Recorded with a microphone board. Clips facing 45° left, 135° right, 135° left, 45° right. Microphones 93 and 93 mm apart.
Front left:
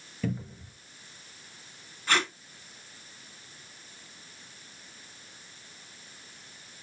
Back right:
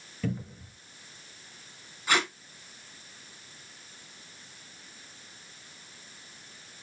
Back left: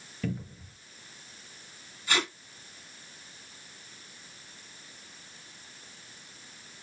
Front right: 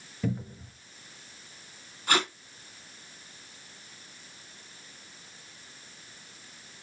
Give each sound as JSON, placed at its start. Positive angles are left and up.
{"t": 0.2, "sound": "a cupboard door", "azimuth_deg": -45, "distance_m": 1.1}
{"t": 2.1, "sound": "tape being pulled", "azimuth_deg": -55, "distance_m": 1.7}